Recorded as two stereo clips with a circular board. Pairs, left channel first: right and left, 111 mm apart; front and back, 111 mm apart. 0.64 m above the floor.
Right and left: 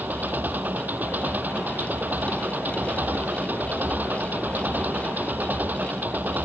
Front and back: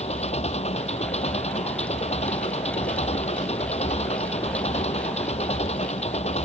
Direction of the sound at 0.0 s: 15° left.